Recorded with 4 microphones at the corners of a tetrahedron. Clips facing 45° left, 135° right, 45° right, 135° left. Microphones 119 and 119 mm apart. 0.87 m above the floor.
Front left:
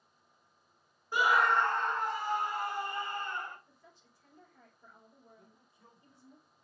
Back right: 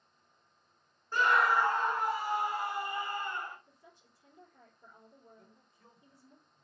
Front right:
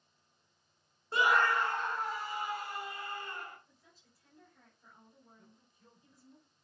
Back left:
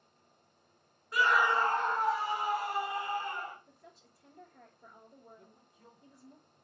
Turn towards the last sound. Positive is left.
turn(degrees=130)